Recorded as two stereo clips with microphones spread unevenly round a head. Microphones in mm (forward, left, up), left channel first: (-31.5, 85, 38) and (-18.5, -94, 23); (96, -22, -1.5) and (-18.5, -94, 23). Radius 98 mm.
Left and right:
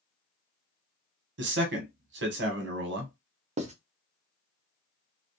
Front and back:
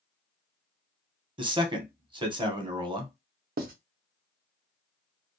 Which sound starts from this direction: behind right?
Writing, at 3.6 s.